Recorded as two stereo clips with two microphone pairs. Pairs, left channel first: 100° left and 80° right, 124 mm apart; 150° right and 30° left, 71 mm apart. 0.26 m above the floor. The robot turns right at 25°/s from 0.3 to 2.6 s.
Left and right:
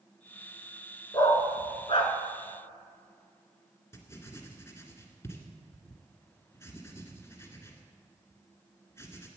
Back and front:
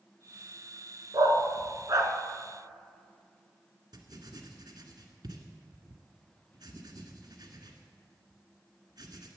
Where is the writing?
35° left, 1.8 m.